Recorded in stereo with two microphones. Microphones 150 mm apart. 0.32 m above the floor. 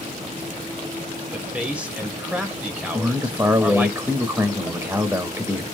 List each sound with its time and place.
1.3 s a man speaking: 10° right (ahead or behind), 1.1 m
2.9 s a man speaking: 20° right (ahead or behind), 0.9 m